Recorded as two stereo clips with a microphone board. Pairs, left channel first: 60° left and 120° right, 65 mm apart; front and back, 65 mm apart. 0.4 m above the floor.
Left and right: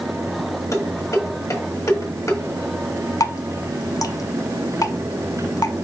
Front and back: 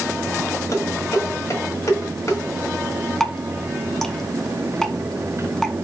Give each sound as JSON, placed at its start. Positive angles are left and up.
{"t": 0.7, "sound": "dishes clattering", "azimuth_deg": 30, "distance_m": 1.5}
{"t": 3.2, "sound": "dripping", "azimuth_deg": 80, "distance_m": 0.6}